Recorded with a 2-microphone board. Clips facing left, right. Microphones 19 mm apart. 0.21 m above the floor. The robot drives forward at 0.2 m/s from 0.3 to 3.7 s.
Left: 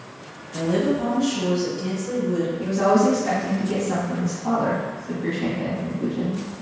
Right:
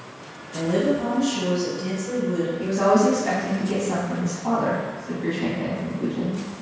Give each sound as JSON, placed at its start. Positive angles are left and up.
{"t": 0.5, "sound": "a woman speaking", "side_deg": 20, "distance_m": 1.1}
{"t": 2.6, "sound": "a woman speaking", "side_deg": -35, "distance_m": 1.4}